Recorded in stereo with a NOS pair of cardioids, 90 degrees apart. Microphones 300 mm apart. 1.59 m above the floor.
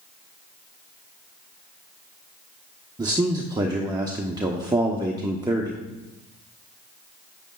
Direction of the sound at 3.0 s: 15° right.